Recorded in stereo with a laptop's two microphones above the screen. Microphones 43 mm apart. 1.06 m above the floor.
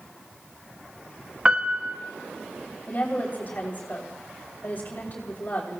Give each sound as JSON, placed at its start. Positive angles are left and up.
{"t": 1.4, "sound": "a piano", "side_deg": -20, "distance_m": 0.6}
{"t": 2.9, "sound": "a woman speaking", "side_deg": 45, "distance_m": 3.0}